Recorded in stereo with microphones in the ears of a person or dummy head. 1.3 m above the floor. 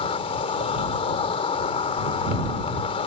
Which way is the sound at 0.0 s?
45° left (ahead or behind).